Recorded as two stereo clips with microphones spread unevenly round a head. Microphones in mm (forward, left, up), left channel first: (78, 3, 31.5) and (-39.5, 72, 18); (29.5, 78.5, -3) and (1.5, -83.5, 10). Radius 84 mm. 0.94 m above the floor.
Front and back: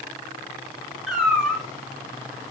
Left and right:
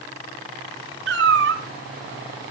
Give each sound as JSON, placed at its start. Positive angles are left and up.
{"t": 1.1, "sound": "a cat meowing", "azimuth_deg": -120, "distance_m": 3.5}